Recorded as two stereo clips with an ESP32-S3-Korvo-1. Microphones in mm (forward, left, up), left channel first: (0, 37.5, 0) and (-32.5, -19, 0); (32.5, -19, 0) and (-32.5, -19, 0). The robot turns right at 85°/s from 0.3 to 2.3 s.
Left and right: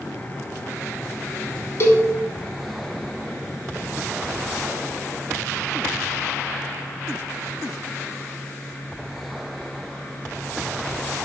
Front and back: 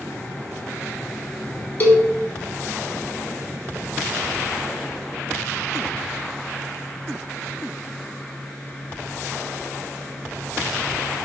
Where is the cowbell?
45° left, 0.6 m; by 2.1 s 70° left, 0.6 m.